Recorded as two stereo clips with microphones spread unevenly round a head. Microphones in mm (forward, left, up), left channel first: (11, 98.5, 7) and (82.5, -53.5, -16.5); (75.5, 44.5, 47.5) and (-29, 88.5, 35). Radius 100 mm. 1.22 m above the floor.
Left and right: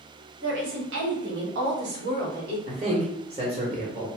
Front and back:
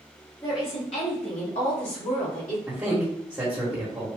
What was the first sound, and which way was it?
A woman speaking, 90° right.